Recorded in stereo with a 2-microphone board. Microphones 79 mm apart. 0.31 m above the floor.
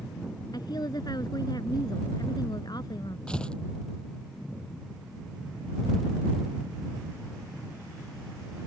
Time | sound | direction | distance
0.5 | a woman speaking | 60° left (ahead or behind) | ?
3.3 | tearing paper | 10° left (ahead or behind) | ?